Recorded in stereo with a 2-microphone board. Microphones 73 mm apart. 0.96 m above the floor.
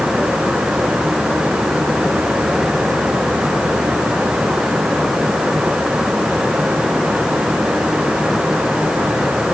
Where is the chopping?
I don't hear chopping.